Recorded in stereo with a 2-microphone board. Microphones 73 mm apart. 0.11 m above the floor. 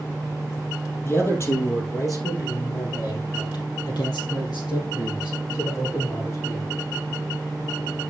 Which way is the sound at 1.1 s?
35° left (ahead or behind).